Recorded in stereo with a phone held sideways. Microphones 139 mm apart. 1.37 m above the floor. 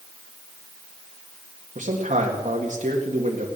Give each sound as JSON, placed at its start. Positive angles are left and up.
{"t": 1.8, "sound": "a man speaking", "side_deg": -60, "distance_m": 2.0}